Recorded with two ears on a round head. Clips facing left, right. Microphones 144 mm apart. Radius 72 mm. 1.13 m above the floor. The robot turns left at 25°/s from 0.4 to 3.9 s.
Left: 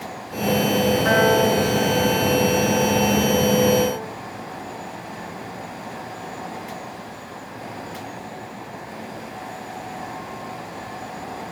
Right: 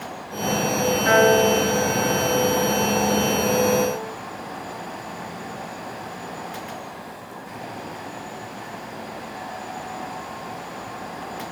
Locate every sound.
1.1 s a piano: 135° left, 10 m; by 4.1 s 60° left, 10 m